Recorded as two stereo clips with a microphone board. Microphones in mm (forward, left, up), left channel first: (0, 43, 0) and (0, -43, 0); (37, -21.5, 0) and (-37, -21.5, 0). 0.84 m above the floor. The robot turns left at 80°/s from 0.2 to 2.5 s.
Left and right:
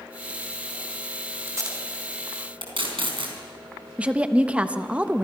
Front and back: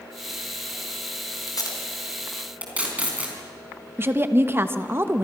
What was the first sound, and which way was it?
Tape being pulled, 25° right.